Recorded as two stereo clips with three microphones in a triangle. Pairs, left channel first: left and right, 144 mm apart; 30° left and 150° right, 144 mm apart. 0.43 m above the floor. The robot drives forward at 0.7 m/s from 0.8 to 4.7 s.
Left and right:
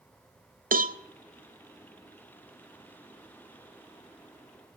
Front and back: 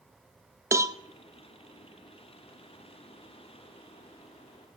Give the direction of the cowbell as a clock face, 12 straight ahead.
3 o'clock.